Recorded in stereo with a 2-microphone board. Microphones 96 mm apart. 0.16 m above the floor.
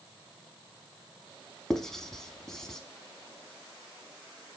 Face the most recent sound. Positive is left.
turn(degrees=5)  # may be behind; listen again after turning